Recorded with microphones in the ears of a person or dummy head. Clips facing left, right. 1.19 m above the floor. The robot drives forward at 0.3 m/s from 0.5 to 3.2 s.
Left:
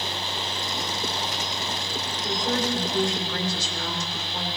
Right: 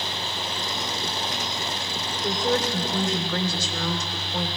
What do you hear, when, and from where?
2.2 s a woman speaking: 85° right, 3 m; by 4.5 s 80° right, 3 m